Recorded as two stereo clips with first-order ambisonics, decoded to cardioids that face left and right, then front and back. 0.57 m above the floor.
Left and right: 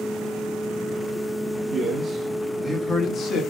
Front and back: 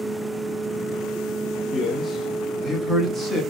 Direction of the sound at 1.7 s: 90° right.